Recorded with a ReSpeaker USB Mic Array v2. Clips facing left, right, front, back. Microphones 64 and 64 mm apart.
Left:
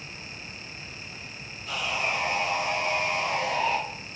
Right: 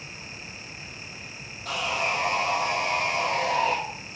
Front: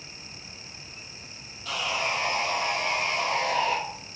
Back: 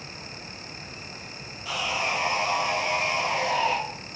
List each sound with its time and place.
1.6 s sawing: 105° right, 3.5 m